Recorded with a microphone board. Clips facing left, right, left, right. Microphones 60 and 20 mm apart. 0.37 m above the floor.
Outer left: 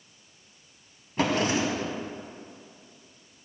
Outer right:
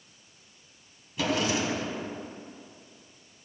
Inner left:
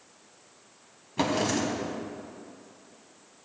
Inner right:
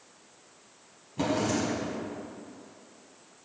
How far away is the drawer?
About 1.2 m.